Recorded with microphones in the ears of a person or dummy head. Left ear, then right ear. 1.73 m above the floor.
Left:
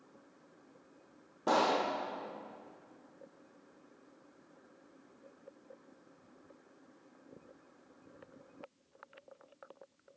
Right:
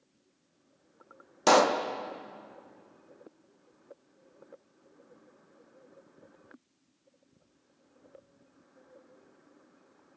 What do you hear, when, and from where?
1.5 s a pop: 60° right (ahead or behind), 0.5 m